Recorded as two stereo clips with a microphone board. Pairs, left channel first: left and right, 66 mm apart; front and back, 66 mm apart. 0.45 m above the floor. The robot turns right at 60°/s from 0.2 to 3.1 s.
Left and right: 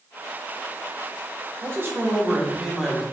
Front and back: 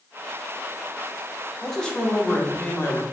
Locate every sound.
1.6 s a man speaking: 85° right, 0.8 m; by 3.0 s 5° left, 0.8 m